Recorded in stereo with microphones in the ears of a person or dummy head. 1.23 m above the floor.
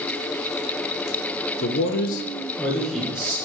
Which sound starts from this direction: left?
A man speaking, at 1.6 s.